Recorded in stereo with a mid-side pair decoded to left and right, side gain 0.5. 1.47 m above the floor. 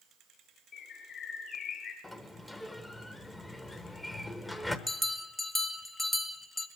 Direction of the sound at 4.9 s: 25° left.